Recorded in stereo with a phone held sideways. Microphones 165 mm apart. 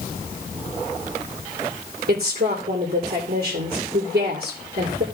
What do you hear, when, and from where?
2.1 s a woman speaking: 70° right (ahead or behind), 2.5 m